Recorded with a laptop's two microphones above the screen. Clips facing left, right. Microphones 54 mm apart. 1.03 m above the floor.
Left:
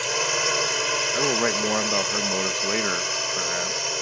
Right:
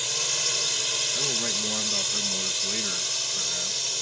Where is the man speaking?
50° left (ahead or behind).